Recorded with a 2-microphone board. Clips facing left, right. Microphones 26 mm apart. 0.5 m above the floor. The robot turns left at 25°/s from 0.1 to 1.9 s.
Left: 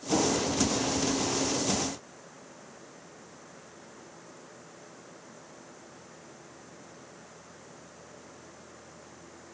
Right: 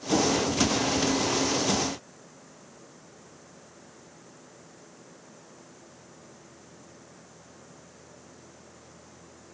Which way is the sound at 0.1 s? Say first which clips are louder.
Right 2 dB; 10° right (ahead or behind).